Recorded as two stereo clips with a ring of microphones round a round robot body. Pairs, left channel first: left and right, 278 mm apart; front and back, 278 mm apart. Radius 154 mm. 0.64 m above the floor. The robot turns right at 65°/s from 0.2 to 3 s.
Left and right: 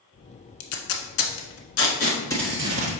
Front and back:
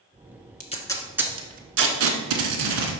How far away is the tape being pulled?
About 1.3 m.